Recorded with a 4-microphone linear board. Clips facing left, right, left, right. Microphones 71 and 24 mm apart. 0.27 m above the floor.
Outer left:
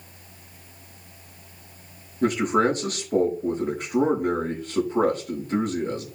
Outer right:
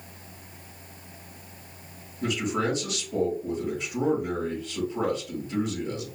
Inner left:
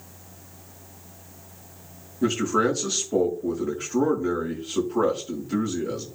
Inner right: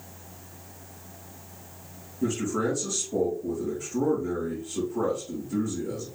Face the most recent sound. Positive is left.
turn(degrees=50)  # may be behind; listen again after turning